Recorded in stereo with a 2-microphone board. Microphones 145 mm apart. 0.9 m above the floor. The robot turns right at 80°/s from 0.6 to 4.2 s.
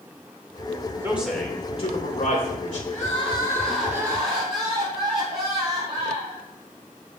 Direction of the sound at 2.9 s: 110° left.